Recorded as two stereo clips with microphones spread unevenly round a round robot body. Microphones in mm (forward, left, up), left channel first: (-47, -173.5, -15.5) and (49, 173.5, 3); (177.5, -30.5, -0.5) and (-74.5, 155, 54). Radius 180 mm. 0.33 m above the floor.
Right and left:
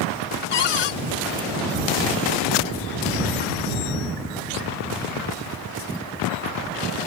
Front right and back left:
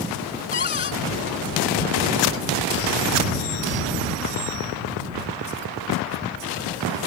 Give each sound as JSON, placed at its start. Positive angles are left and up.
{"t": 0.5, "sound": "a cupboard door", "azimuth_deg": -100}